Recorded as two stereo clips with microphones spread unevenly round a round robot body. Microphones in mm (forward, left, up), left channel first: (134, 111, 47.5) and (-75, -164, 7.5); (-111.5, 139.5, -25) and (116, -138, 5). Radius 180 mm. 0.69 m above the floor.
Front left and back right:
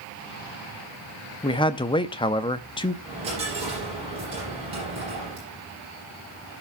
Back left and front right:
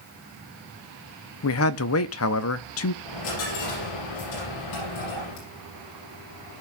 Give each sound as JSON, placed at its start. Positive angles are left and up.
{"t": 1.4, "sound": "a man speaking", "azimuth_deg": 130, "distance_m": 0.6}
{"t": 3.0, "sound": "a dropped coin", "azimuth_deg": 160, "distance_m": 7.0}